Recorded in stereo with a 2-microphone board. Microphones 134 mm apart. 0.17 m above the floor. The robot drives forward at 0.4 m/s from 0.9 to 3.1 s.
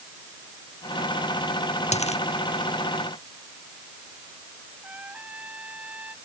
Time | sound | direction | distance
1.9 | a dropped coin | 55° left (ahead or behind) | ?
4.8 | a trumpet | 10° right (ahead or behind) | ?